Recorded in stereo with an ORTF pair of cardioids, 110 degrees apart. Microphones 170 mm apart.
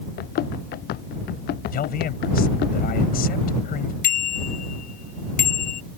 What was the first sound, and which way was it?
Running footsteps, 65° left.